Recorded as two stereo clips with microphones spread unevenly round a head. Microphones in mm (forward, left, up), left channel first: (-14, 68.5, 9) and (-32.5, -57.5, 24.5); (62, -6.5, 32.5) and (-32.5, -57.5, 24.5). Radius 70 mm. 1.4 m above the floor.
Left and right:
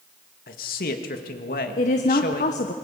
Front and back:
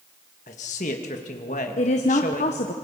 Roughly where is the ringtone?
No ringtone in this recording.